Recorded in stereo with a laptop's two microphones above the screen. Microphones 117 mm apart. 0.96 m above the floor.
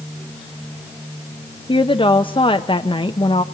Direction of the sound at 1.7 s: 50° left (ahead or behind).